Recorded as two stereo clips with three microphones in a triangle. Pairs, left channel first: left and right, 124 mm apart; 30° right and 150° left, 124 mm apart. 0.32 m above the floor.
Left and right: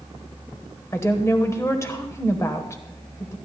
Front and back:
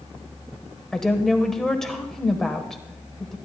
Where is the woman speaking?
55° left, 1.2 m.